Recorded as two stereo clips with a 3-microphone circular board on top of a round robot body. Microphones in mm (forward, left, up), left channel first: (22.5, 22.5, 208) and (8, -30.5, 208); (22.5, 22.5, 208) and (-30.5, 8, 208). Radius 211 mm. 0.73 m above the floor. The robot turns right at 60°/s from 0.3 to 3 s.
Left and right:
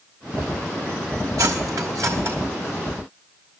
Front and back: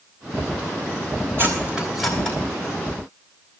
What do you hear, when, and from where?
1.4 s cutlery clinking: 115° right, 3 m; by 2.4 s 55° right, 3 m